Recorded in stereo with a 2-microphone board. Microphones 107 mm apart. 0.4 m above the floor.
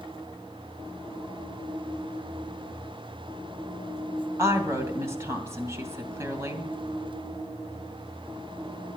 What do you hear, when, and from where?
4.4 s a woman speaking: 25° right (ahead or behind), 2.5 m